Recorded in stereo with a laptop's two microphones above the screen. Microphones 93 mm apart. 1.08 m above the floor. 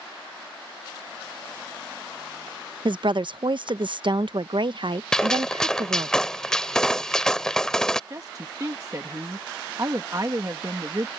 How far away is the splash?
No splash in this recording.